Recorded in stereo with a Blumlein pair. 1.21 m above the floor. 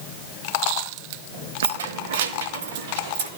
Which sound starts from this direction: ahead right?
Keys jangling, at 1.6 s.